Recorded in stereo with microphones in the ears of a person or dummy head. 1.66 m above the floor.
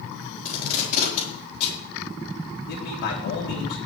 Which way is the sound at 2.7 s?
60° left (ahead or behind).